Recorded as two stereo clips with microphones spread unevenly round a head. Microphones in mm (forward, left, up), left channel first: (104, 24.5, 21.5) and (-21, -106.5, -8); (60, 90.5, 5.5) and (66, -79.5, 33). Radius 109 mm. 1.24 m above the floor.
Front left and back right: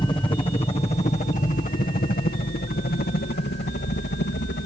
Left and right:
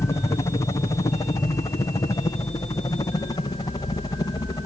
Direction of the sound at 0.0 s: 100° left.